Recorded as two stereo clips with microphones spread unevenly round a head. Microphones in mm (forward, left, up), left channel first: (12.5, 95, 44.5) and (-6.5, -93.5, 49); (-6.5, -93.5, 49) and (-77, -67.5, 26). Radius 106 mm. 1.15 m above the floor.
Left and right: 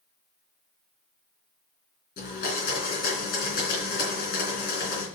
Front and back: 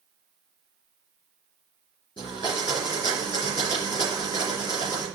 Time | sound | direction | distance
2.2 | a blender | 40° left | 3.5 m